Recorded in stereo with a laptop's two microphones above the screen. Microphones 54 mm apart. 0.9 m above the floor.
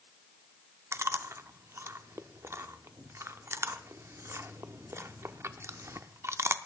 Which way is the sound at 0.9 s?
55° right (ahead or behind).